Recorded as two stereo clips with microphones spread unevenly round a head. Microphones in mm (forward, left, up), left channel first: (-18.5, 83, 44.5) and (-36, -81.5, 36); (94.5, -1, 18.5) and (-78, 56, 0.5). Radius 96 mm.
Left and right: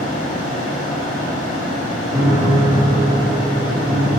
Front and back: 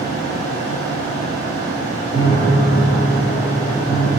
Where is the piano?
60° right, 2 m.